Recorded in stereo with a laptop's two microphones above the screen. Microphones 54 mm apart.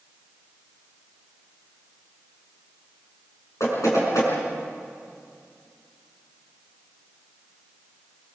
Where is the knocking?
70° left (ahead or behind), 6.5 m.